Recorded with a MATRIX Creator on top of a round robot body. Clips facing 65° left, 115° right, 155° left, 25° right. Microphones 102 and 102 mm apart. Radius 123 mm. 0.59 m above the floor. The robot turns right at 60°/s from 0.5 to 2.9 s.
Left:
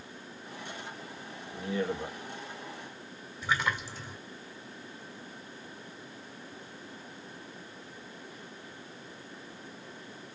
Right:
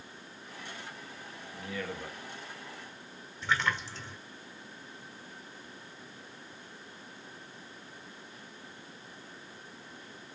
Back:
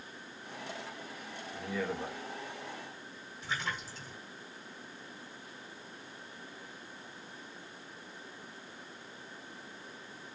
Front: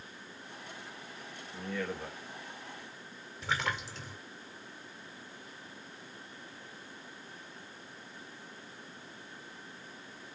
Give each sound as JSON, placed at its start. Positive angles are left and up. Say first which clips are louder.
{"t": 1.5, "sound": "a man speaking", "louder": "left 7 dB, back 1 dB", "azimuth_deg": 65, "distance_m": 1.3}
{"t": 3.4, "sound": "a splash", "louder": "even, front 4 dB", "azimuth_deg": -15, "distance_m": 2.0}